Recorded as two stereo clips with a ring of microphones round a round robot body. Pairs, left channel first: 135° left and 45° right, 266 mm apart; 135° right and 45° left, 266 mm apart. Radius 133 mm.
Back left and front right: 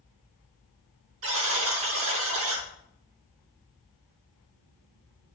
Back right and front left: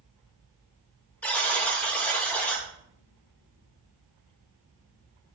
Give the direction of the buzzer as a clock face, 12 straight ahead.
2 o'clock.